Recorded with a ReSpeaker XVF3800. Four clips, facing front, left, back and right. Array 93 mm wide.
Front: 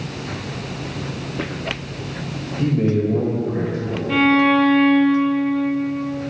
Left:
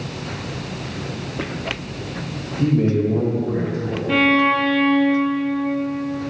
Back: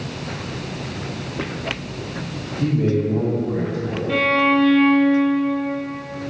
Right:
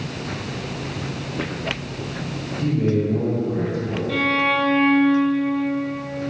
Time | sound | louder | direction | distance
2.6 | a man speaking | left 3 dB, front 1 dB | 35° left | 2.5 m
4.1 | a violin | left 5 dB, front 3 dB | 80° left | 1.1 m